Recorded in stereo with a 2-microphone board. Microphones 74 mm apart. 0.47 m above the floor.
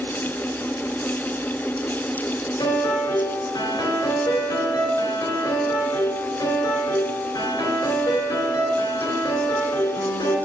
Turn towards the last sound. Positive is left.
turn(degrees=70)  # may be behind; listen again after turning